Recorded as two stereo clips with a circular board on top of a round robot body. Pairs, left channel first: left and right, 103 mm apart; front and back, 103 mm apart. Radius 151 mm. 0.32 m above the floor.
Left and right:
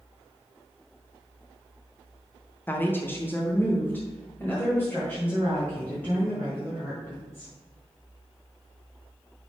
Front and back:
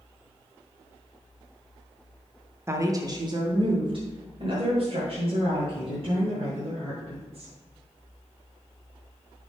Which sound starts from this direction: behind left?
A woman speaking, at 2.7 s.